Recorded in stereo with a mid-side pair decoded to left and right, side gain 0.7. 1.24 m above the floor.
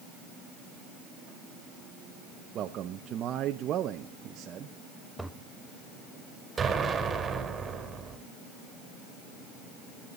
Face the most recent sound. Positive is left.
turn(degrees=-25)